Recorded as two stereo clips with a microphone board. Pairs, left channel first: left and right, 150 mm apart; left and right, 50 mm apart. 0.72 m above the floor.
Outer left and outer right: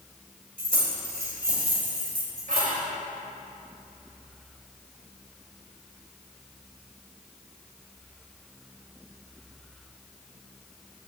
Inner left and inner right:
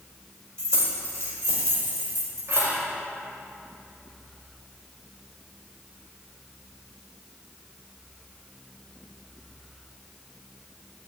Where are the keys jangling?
70° right (ahead or behind), 2 m; by 2.8 s 75° right (ahead or behind), 3 m.